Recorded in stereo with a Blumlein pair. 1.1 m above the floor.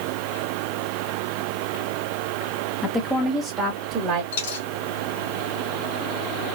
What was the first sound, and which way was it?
A woman speaking, 10° left.